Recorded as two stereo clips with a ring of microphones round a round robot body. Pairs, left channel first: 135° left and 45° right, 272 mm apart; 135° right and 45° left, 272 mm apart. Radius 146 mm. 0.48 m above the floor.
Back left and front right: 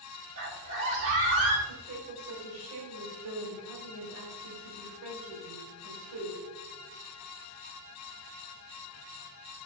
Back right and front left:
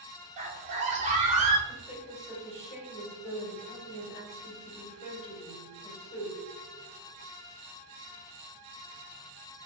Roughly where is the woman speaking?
Right.